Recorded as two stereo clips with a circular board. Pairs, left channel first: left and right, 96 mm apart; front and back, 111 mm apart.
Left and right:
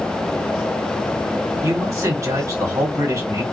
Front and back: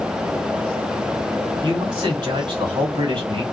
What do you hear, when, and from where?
1.6 s a man speaking: 140° right, 1.6 m